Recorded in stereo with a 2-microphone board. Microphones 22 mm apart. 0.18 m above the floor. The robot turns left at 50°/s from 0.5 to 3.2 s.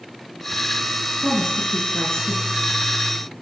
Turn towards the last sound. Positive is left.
turn(degrees=65)